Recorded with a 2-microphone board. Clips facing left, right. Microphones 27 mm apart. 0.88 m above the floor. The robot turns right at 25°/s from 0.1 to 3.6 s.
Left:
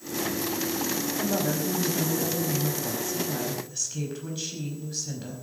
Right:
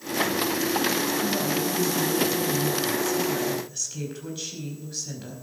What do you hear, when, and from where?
1.2 s a woman speaking: 120° left, 4.5 m; by 5.3 s straight behind, 4.5 m